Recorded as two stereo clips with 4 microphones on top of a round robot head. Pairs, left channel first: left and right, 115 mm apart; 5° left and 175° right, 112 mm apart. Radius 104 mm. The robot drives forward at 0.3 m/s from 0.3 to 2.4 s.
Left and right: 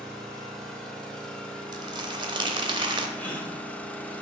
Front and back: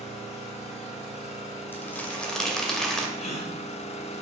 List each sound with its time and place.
0.0 s an engine running: 5° left, 1.3 m; by 4.2 s 10° left, 0.6 m
1.7 s crumpling: 60° right, 0.8 m; by 3.1 s 80° right, 0.8 m
3.2 s a gasp: 15° left, 1.1 m